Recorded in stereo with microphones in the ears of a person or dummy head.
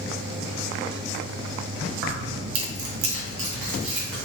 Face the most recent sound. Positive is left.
turn(degrees=-30)  # may be behind; listen again after turning